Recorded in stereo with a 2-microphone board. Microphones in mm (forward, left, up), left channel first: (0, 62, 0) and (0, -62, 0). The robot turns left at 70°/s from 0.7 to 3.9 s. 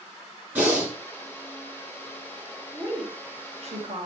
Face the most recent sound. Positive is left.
turn(degrees=-90)